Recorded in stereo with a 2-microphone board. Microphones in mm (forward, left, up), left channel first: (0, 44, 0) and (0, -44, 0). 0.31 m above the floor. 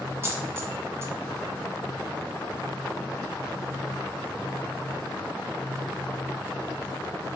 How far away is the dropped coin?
About 1.1 m.